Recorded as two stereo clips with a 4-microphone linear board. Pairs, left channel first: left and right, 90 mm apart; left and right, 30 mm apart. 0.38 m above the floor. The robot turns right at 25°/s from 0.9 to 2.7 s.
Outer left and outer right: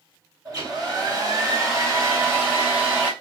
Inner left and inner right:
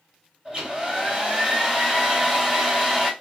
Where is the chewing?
I don't hear chewing.